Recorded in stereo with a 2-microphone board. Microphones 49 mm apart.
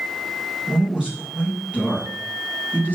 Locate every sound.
0.7 s a man speaking: 15° right (ahead or behind), 3 m; by 3.0 s 35° right (ahead or behind), 3.5 m